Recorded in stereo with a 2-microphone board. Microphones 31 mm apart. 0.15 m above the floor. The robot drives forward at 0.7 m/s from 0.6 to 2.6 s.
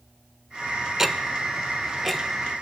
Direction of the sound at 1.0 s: 15° right (ahead or behind).